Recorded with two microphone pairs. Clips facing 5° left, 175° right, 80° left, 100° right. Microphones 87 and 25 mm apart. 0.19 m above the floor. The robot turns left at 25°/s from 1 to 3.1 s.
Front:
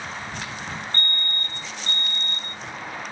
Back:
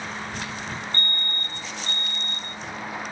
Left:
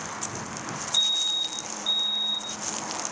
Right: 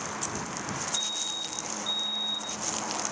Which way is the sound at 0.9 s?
45° left.